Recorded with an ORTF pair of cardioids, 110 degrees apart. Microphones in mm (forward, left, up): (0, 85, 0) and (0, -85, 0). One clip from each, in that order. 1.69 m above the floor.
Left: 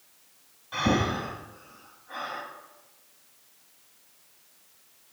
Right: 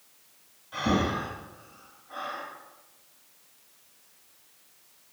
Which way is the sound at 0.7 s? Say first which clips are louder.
Left 1 dB; 35° left.